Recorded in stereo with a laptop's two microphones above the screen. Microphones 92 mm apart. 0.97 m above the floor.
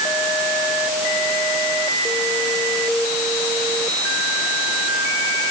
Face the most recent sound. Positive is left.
No sound to turn to.